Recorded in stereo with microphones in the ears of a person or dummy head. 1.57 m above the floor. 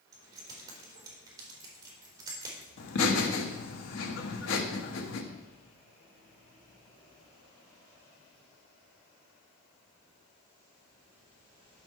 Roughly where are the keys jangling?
Right.